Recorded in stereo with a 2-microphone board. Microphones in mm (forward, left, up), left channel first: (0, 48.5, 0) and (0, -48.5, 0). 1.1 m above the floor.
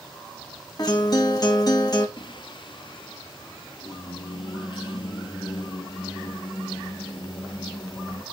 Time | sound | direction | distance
0.8 | a guitar | 40° left (ahead or behind) | 2 m
2.2 | singing | 50° left (ahead or behind) | 0.9 m